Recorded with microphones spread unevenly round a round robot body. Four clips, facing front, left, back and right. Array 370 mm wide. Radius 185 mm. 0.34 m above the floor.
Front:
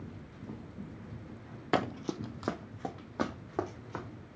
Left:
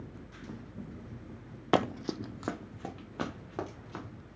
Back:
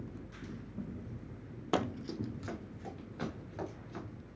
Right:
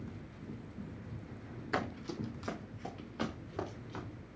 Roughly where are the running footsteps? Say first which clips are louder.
Left 9 dB, front 3 dB; left.